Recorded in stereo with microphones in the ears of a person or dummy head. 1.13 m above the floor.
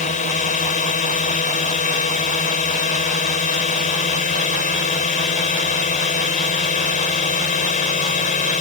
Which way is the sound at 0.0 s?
35° left (ahead or behind).